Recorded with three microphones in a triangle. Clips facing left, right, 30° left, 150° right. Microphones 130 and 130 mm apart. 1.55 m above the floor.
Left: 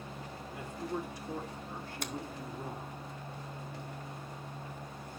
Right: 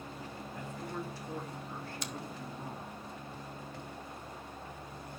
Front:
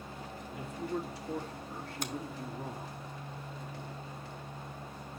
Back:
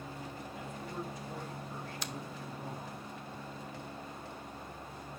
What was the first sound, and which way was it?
A man speaking, 15° left.